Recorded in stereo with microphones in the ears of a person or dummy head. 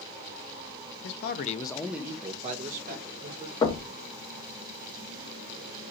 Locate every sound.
1.0 s a man speaking: 65° left (ahead or behind), 0.8 m; by 3.5 s 55° right (ahead or behind), 1.7 m
3.6 s knocking: 30° left (ahead or behind), 1.2 m